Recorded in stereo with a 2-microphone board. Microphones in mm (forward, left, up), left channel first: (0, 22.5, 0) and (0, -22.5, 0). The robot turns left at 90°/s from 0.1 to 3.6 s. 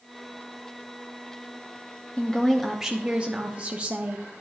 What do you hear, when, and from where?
2.2 s a woman speaking: 45° left, 0.6 m; by 4.2 s 85° right, 0.6 m